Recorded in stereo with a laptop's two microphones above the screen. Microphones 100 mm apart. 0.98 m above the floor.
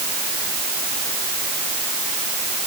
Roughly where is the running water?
No running water in this recording.